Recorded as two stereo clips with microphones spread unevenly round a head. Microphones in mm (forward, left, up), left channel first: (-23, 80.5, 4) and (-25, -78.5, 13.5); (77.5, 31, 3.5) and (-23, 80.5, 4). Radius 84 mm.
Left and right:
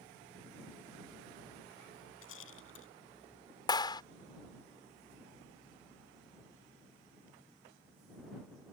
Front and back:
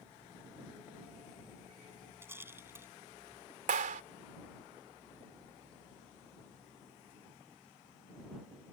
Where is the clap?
155° left.